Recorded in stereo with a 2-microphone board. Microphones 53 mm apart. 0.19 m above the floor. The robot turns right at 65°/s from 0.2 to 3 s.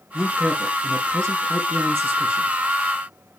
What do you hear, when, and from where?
0.1 s a woman speaking: 160° right, 4 m; by 2.6 s 10° right, 4 m